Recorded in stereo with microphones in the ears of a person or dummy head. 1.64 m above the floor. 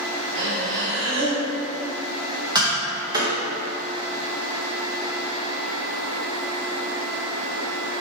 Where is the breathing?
60° right (ahead or behind), 2.5 m.